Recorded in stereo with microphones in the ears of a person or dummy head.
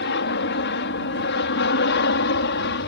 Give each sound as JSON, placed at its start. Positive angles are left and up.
{"t": 0.0, "sound": "an aircraft", "side_deg": 50}